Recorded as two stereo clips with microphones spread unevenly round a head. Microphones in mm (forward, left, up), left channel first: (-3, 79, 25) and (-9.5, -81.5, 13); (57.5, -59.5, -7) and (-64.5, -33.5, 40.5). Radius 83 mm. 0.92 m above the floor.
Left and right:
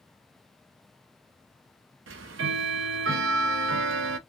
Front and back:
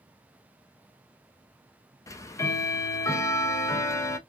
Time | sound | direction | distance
2.1 | ticking | 80° right | 0.5 m